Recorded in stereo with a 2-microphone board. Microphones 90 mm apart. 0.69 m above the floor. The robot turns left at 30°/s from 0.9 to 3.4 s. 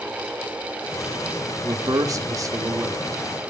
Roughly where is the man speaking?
Right.